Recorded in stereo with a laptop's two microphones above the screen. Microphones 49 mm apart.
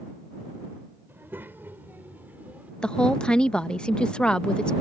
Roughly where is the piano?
I don't hear a piano.